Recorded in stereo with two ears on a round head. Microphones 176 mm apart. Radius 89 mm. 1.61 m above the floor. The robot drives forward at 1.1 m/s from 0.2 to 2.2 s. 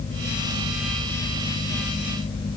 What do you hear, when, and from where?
Only background noise.